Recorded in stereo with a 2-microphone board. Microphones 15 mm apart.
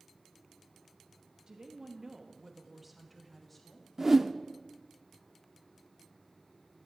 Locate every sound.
1.5 s a woman speaking: 45° right (ahead or behind), 1.3 m; by 3.9 s 25° left (ahead or behind), 1.7 m
4.0 s a whoosh: 35° right (ahead or behind), 0.5 m